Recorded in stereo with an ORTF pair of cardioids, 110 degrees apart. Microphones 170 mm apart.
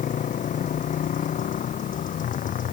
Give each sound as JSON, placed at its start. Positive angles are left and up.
{"t": 0.0, "sound": "a motorcycle", "azimuth_deg": 50}